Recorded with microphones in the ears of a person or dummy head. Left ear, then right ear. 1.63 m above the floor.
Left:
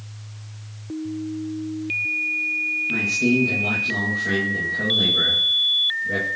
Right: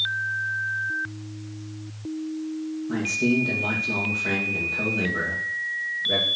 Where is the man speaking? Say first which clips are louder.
Even; 45° right (ahead or behind), 2.5 m.